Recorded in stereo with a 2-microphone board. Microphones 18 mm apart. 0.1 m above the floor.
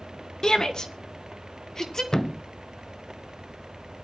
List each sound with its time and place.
0.4 s a shout: 35° left (ahead or behind), 1.5 m; by 2.0 s 25° left (ahead or behind), 2.5 m
2.1 s a thud: 30° left (ahead or behind), 0.5 m